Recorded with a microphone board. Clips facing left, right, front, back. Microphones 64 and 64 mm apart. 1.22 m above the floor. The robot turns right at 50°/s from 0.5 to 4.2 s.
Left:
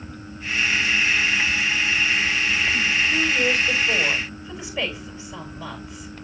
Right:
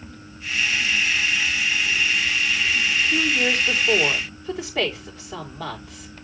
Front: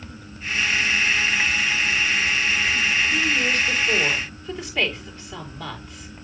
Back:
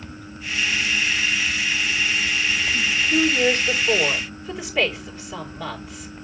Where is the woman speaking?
150° right, 4 m; by 6.1 s 95° right, 4 m.